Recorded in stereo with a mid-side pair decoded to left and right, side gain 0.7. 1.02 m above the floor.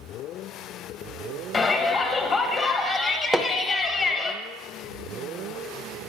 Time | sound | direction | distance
1.5 | a shout | 35° left | 1.3 m
3.3 | hammering | 5° right | 0.7 m